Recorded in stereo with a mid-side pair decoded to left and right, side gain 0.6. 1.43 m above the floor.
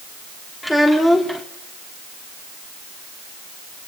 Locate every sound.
0.6 s a child speaking: straight ahead, 3 m